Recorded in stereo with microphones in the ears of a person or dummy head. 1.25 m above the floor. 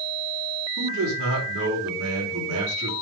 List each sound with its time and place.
0.8 s a man speaking: 75° right (ahead or behind), 5 m